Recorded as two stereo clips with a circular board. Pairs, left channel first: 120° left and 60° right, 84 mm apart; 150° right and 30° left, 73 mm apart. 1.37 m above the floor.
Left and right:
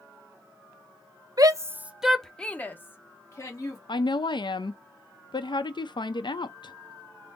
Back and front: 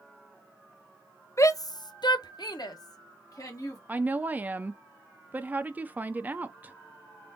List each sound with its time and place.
1.4 s a shout: 100° right, 0.6 m; by 3.8 s 170° left, 1.5 m
3.9 s a woman speaking: 95° left, 0.6 m